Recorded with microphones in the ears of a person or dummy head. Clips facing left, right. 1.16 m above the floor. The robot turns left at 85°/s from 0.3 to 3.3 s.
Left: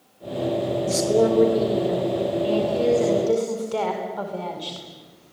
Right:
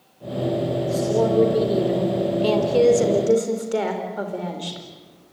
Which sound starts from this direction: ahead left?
A woman speaking, at 0.9 s.